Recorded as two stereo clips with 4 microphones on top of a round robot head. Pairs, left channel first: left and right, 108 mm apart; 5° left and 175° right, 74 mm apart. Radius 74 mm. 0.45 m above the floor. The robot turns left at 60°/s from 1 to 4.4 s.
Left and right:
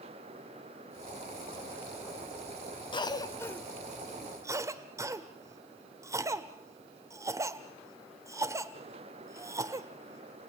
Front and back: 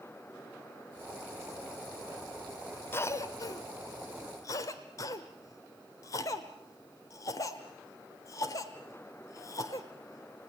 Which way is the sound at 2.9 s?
55° left.